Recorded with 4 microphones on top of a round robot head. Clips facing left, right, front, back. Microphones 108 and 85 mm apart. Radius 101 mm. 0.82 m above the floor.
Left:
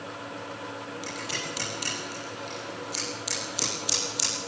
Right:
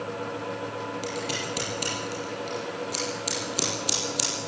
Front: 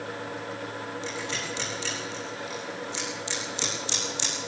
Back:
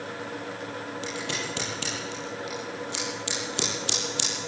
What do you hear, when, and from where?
1.0 s scissors: 140° right, 8 m